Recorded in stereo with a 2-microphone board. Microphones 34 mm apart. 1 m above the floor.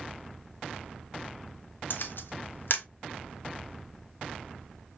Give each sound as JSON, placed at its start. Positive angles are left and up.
{"t": 1.9, "sound": "a camera shutter", "side_deg": 70, "distance_m": 0.5}